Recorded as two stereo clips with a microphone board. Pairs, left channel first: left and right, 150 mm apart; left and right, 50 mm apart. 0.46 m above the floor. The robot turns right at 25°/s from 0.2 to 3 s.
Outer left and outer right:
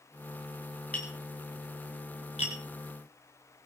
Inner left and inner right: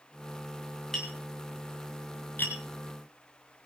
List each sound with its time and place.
0.9 s tapping: 10° left (ahead or behind), 7.5 m; by 2.5 s 50° left (ahead or behind), 7.5 m